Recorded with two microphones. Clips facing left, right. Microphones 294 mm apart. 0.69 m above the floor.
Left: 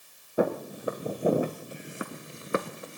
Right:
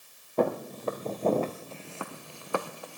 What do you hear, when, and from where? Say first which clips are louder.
0.4 s footsteps: even; 10° left (ahead or behind), 1.6 m; by 3.0 s 20° left (ahead or behind), 0.7 m